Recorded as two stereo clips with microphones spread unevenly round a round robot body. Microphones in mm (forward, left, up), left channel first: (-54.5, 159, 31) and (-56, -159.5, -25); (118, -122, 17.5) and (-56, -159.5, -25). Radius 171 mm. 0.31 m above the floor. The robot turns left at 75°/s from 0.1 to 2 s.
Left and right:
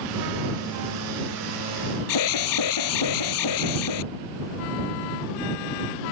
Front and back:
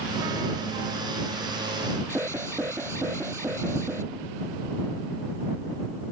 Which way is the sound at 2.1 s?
110° left.